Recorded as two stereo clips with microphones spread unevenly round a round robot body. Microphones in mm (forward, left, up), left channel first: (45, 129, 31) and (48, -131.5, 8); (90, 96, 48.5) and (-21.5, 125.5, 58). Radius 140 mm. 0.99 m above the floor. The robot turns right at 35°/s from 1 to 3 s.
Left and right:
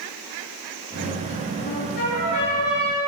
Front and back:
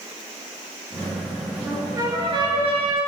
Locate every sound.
1.6 s a trumpet: 95° left, 8.5 m; by 3.0 s 145° left, 8.5 m